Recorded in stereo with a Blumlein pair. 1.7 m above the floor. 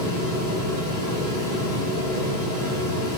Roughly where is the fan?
Ahead left.